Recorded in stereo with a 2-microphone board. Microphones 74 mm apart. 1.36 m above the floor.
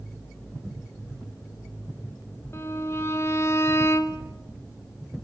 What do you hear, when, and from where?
2.5 s a violin: 35° left (ahead or behind), 2.0 m